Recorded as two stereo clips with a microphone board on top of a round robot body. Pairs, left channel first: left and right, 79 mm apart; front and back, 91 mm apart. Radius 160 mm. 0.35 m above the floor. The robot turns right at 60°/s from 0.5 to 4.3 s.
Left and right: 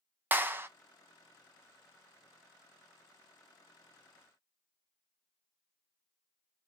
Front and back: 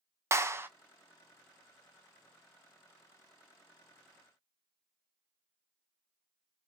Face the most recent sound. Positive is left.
turn(degrees=90)